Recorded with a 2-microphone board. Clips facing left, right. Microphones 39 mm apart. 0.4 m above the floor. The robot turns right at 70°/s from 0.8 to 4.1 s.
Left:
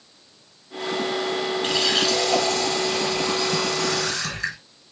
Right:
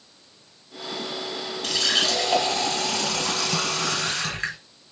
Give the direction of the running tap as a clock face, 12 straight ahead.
7 o'clock.